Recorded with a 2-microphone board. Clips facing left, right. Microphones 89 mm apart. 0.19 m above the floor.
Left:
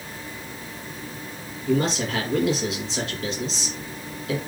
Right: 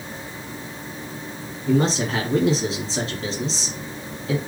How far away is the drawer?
No drawer in this recording.